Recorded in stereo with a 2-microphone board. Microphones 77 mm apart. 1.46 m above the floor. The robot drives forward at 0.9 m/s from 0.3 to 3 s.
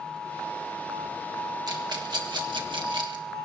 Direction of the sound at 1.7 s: 60° right (ahead or behind).